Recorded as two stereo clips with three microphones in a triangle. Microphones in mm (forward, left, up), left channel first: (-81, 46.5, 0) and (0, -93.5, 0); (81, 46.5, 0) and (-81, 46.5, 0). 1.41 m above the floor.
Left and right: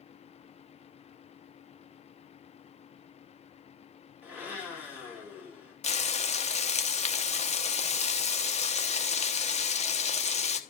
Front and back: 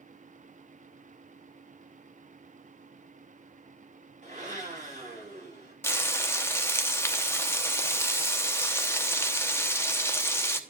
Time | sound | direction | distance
4.2 | a blender | 140° right | 5 m
5.8 | frying | 75° left | 0.9 m